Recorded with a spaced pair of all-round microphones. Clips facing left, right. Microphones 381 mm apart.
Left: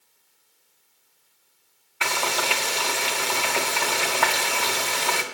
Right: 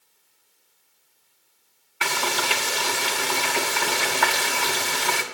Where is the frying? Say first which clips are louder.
Even; 25° right (ahead or behind), 1.7 m.